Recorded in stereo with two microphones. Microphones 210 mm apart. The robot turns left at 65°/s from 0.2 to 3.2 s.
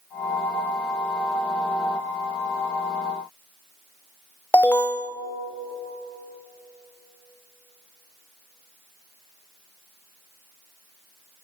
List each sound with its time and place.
4.5 s an alarm: 10° left (ahead or behind), 0.6 m